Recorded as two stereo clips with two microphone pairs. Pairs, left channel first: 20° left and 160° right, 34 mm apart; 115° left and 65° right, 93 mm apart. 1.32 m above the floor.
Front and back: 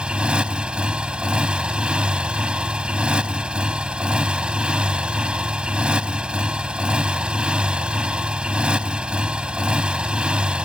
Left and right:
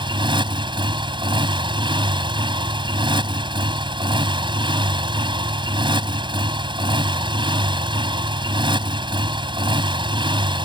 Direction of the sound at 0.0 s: 100° right.